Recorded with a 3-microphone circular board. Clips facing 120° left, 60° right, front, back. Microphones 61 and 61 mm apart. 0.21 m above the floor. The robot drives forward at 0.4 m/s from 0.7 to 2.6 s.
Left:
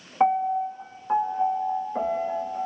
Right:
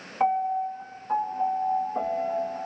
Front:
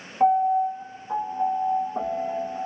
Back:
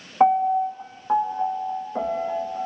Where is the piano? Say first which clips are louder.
Left 2 dB, back 1 dB; 170° right, 0.5 m; by 2.6 s 175° right, 1.2 m.